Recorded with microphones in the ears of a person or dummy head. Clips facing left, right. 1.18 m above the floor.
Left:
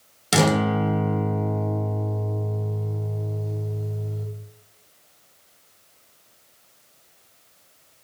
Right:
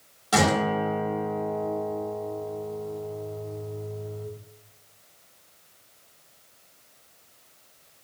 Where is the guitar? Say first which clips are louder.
Left 3 dB; 30° left (ahead or behind), 0.8 m.